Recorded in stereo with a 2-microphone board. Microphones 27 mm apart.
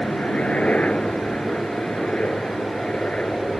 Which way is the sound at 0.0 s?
55° left (ahead or behind).